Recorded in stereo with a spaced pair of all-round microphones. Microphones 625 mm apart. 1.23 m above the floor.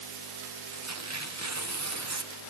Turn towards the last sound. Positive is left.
turn(degrees=-25)  # may be behind; listen again after turning